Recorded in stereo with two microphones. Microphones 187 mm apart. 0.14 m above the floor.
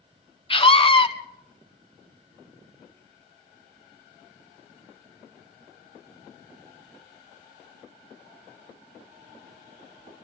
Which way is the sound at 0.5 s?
30° left (ahead or behind).